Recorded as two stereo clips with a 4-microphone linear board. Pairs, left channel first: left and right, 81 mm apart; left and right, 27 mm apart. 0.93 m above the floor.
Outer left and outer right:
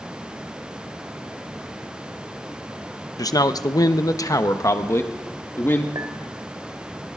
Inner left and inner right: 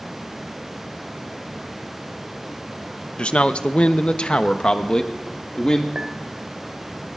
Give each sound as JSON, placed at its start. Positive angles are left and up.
{"t": 3.2, "sound": "a man speaking", "side_deg": 45, "distance_m": 0.8}
{"t": 6.0, "sound": "a clink", "side_deg": -55, "distance_m": 2.0}